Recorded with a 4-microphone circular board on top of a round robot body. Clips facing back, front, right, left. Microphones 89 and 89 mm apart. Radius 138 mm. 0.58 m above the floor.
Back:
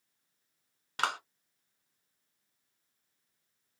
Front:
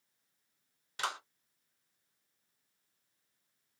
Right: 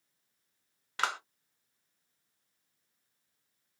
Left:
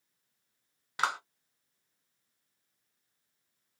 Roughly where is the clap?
Behind.